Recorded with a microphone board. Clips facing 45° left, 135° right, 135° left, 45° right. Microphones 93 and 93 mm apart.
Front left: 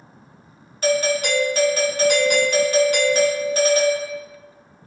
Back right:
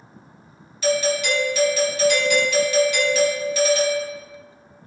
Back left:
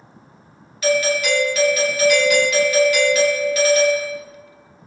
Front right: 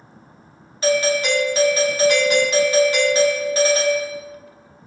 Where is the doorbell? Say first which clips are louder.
Front left 1 dB, even; 10° left, 0.9 m.